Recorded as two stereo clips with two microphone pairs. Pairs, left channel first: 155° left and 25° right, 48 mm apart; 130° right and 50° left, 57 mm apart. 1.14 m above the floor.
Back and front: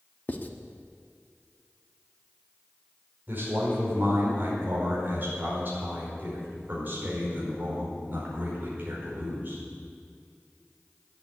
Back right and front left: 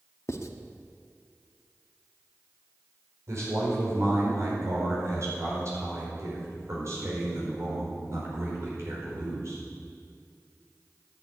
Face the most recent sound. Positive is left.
turn(degrees=20)